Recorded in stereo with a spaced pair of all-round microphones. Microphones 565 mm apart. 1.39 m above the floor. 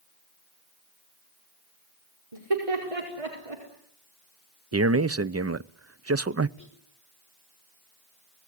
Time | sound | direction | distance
2.3 | laughter | 75° right (ahead or behind) | 5 m
4.7 | a man speaking | 25° right (ahead or behind) | 0.5 m
6.6 | whispering | 30° left (ahead or behind) | 4.5 m